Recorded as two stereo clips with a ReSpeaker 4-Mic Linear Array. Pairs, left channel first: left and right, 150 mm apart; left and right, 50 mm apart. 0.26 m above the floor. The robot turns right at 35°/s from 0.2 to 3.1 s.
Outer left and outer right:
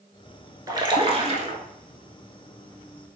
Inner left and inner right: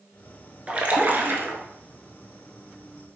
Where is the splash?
155° right, 0.6 m; by 1.6 s 125° right, 0.6 m.